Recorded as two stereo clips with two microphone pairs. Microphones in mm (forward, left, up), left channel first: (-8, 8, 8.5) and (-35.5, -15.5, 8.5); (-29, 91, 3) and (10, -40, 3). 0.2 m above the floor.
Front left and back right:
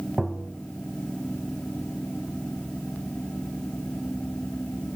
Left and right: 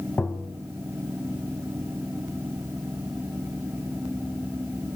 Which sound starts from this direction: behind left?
Tapping, at 0.2 s.